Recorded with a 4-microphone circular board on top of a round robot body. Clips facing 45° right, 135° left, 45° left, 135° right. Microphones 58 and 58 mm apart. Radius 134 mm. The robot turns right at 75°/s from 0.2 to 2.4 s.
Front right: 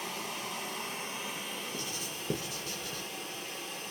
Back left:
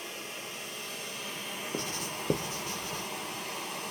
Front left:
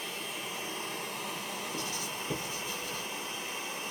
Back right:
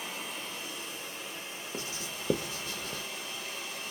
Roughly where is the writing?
Behind left.